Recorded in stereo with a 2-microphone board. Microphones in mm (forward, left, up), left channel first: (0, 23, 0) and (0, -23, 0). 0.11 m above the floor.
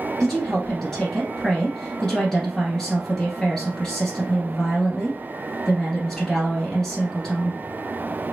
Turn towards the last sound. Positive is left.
turn(degrees=10)  # may be behind; listen again after turning